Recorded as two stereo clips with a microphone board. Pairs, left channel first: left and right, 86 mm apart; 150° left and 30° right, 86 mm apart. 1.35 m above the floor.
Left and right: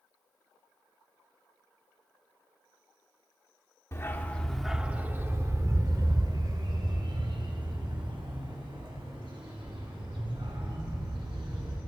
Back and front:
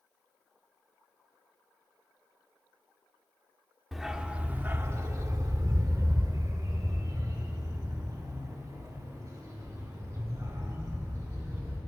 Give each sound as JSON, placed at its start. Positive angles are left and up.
{"t": 3.9, "sound": "a dog barking", "azimuth_deg": 60, "distance_m": 1.1}